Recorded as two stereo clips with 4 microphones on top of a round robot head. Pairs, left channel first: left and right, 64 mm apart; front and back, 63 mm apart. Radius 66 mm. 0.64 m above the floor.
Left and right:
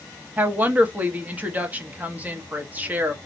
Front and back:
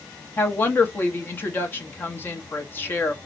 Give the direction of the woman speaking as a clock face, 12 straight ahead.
1 o'clock.